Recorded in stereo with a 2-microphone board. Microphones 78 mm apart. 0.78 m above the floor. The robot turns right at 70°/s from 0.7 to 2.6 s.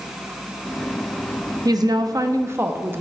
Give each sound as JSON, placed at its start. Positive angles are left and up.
{"t": 1.6, "sound": "a woman speaking", "azimuth_deg": -105, "distance_m": 0.6}